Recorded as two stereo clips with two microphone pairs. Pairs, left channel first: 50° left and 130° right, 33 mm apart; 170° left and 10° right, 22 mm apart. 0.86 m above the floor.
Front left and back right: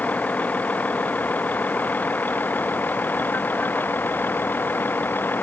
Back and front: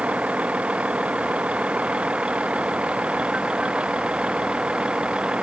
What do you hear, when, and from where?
0.0 s a vehicle: 15° left; by 5.4 s 35° left